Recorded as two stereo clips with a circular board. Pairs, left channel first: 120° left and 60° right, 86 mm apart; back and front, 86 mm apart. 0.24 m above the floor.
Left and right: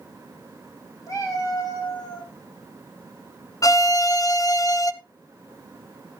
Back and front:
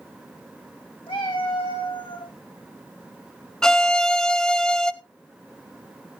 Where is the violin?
100° left, 0.5 m.